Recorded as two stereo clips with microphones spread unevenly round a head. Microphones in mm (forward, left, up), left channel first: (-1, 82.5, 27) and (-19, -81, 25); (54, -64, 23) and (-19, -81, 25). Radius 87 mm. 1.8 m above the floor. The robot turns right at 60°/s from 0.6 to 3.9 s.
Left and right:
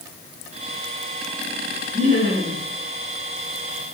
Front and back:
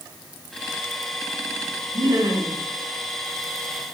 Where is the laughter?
145° right, 6 m; by 2.6 s 105° right, 6 m.